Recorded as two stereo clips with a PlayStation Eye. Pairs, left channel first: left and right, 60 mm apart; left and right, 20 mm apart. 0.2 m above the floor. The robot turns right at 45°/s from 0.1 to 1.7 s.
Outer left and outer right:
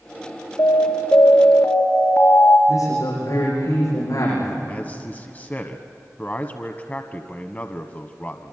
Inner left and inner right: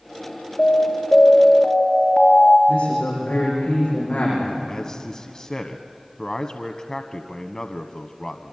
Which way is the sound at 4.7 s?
30° left (ahead or behind).